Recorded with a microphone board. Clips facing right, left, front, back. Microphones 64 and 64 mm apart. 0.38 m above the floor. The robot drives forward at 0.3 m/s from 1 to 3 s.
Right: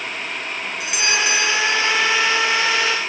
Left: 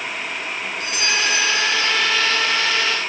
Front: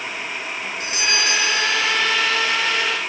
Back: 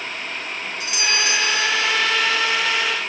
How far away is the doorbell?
About 1.6 m.